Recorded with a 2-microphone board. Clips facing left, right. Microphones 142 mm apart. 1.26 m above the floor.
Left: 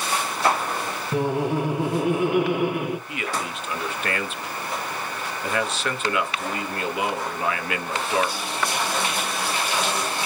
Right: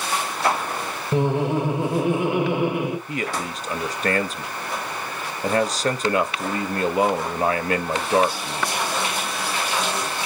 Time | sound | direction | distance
1.1 | laughter | 25° right (ahead or behind) | 1.1 m
3.1 | a man speaking | 40° right (ahead or behind) | 0.7 m